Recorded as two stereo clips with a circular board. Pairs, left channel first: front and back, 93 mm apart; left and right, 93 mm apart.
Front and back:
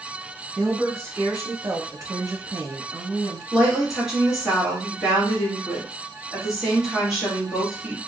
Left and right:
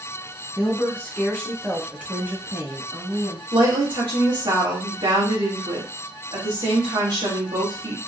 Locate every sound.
0.6 s a woman speaking: 125° left, 1.1 m; by 3.4 s 125° right, 1.5 m
3.5 s a woman speaking: 90° right, 1.8 m